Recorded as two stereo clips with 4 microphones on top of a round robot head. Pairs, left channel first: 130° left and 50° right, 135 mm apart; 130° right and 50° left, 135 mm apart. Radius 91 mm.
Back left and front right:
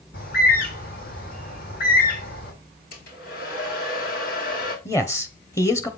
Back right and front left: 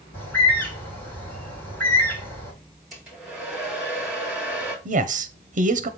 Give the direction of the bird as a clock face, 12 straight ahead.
7 o'clock.